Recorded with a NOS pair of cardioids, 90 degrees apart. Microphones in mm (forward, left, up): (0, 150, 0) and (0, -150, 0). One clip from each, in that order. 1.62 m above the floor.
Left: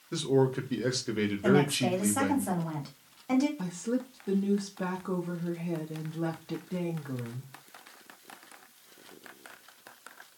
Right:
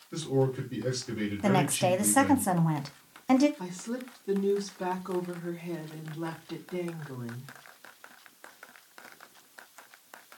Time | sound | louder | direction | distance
0.1 | a man speaking | left 2 dB | 60° left | 1.0 m
1.4 | a woman speaking | right 1 dB | 35° right | 0.8 m
3.6 | a woman speaking | left 4 dB | 35° left | 0.7 m